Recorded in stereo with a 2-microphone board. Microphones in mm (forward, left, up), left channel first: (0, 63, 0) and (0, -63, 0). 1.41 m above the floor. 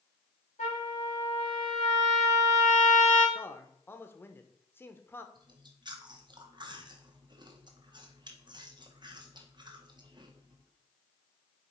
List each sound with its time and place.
0.6 s a trumpet: 70° left (ahead or behind), 3.5 m
3.4 s a man speaking: 20° left (ahead or behind), 0.8 m
5.3 s chewing: 40° right (ahead or behind), 1.0 m